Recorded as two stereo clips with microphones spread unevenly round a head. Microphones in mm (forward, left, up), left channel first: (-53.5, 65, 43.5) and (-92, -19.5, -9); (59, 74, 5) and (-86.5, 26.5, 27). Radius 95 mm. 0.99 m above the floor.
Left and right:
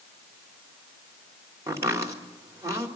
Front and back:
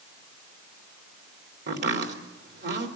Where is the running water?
I don't hear running water.